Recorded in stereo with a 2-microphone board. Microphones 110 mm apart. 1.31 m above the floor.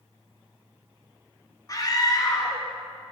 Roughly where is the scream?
Left.